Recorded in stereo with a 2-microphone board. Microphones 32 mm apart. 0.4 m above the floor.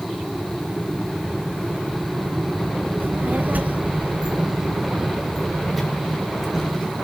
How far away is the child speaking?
About 1.7 m.